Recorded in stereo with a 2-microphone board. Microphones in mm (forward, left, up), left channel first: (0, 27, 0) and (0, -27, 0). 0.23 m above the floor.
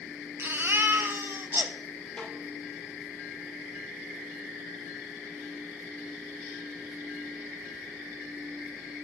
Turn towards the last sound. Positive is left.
turn(degrees=15)  # may be behind; listen again after turning